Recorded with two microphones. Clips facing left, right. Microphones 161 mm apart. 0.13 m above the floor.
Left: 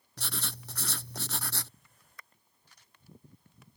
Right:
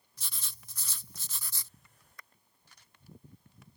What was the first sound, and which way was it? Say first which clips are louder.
Writing: left 13 dB; 70° left (ahead or behind).